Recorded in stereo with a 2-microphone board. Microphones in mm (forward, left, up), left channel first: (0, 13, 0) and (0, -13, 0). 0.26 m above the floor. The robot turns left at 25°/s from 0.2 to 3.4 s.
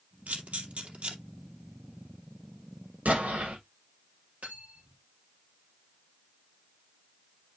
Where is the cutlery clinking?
65° right (ahead or behind), 5 m.